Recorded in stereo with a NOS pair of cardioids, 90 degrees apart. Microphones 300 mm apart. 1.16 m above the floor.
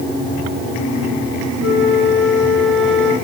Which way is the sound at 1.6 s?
40° left.